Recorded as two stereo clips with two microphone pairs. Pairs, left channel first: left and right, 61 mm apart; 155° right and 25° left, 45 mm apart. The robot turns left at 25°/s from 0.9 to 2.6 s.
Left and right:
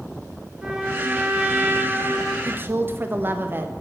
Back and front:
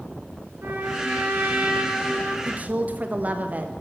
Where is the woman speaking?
30° right, 0.7 m; by 3.7 s 35° right, 0.7 m.